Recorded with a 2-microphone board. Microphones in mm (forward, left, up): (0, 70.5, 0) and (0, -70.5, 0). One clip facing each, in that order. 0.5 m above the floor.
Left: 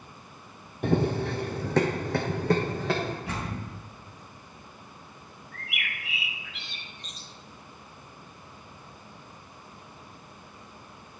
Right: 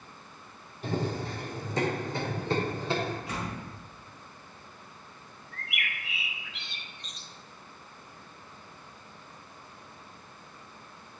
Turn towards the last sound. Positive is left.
turn(degrees=0)  # may be behind; listen again after turning